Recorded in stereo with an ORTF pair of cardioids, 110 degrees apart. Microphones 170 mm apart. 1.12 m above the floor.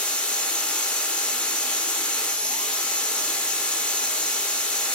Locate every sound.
0.0 s a machine running: 5° left, 0.8 m